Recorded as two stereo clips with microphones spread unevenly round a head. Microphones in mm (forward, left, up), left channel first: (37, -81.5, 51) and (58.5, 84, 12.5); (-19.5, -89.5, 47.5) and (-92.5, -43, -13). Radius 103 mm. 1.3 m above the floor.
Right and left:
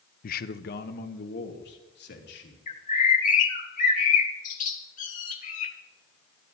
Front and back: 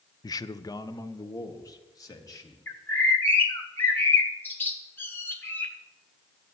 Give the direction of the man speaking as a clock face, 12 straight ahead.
2 o'clock.